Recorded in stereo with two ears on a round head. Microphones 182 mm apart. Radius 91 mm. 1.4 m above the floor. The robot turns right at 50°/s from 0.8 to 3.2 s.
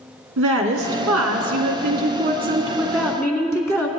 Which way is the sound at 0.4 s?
110° right.